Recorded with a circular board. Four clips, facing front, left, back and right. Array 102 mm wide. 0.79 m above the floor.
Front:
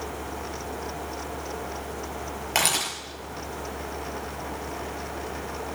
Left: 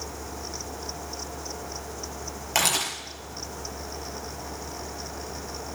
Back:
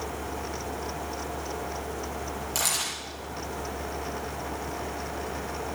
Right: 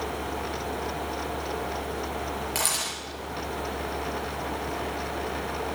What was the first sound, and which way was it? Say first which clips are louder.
A camera shutter: left 3 dB, front 5 dB; 30° left.